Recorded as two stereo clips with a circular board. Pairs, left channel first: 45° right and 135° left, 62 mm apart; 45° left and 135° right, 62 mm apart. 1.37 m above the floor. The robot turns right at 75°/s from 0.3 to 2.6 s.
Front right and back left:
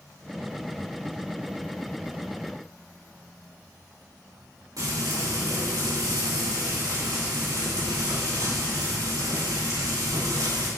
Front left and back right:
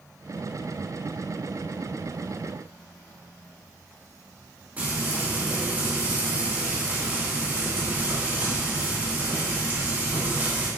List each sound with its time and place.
4.8 s frying: 160° left, 2.5 m